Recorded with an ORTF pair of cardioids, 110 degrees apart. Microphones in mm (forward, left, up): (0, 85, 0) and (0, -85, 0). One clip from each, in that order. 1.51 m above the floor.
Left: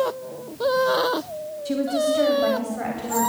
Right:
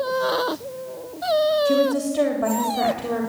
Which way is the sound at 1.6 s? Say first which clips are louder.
Right 3 dB; 25° right.